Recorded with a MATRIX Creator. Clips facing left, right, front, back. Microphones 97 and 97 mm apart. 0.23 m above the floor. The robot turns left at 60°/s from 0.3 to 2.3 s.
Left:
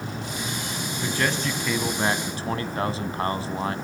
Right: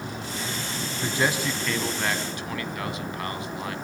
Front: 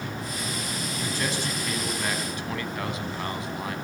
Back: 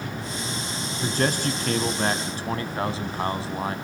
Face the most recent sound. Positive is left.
turn(degrees=135)